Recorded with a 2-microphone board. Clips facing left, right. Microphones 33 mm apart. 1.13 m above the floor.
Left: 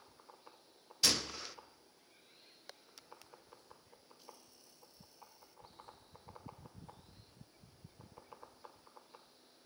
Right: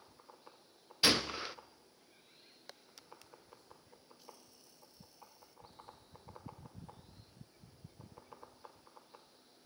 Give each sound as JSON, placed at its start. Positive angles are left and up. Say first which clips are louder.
{"t": 1.0, "sound": "a gunshot", "louder": "right 4 dB", "side_deg": -30, "distance_m": 0.8}